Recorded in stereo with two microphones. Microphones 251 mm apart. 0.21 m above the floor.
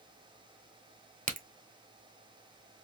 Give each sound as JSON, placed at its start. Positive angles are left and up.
{"t": 1.3, "sound": "a crack", "side_deg": -30, "distance_m": 0.9}